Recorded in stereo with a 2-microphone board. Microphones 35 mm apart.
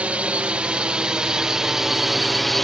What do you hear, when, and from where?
0.0 s a drone: 40° right (ahead or behind); by 2.6 s 5° left (ahead or behind)